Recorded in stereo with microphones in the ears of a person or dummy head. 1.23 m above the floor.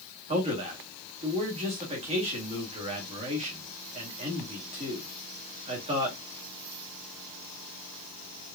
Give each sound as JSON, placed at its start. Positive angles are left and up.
{"t": 0.3, "sound": "a man speaking", "side_deg": -30, "distance_m": 1.6}